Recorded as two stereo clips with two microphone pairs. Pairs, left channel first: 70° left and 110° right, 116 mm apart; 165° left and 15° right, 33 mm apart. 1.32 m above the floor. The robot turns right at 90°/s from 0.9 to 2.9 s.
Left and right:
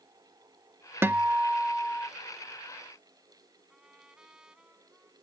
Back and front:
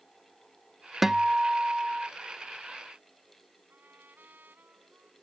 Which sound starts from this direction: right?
A guitar, at 1.0 s.